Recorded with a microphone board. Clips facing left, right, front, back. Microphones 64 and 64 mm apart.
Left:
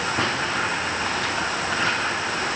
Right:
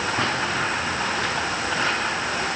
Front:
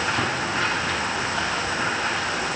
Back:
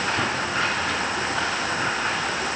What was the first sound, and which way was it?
Only background noise.